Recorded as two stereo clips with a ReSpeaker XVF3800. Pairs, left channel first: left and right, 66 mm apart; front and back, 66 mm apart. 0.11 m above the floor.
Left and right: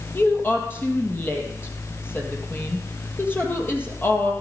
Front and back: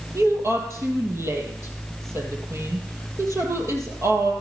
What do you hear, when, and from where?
0.1 s a woman speaking: 145° left, 3.5 m